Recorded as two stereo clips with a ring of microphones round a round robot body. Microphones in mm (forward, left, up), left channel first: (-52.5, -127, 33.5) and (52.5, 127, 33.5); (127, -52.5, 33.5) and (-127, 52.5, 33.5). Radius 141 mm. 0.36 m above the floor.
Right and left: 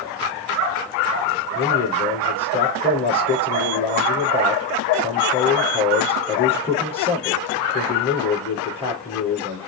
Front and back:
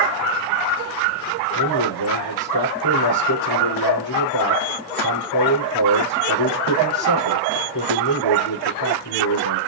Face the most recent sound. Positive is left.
turn(degrees=-40)